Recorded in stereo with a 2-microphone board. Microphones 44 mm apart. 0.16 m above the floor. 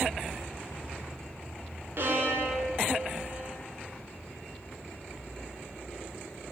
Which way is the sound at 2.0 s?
50° right (ahead or behind).